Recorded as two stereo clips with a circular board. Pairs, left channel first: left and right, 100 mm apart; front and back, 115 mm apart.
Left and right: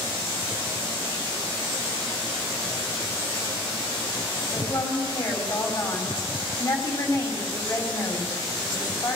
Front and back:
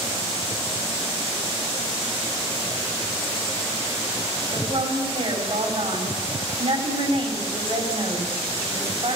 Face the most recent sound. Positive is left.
turn(degrees=155)